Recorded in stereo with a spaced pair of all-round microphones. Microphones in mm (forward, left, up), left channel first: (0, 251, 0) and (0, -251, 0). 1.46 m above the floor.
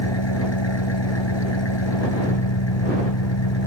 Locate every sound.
0.0 s an engine running: 60° left (ahead or behind)